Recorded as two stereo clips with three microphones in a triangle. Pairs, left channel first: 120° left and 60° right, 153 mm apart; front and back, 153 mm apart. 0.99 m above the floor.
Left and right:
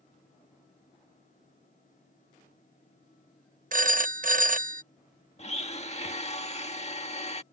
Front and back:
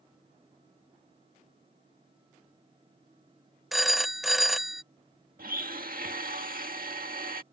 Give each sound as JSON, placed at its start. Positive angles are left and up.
{"t": 3.7, "sound": "a phone ringing", "azimuth_deg": -90}
{"t": 5.4, "sound": "a blender", "azimuth_deg": 165}